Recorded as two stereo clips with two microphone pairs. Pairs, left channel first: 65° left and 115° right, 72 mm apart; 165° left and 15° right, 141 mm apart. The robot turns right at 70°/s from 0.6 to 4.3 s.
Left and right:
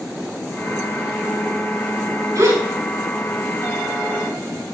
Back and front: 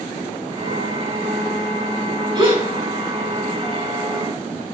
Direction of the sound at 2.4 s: 75° right.